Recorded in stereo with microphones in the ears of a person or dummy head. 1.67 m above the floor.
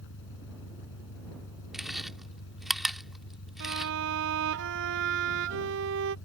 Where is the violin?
70° right (ahead or behind).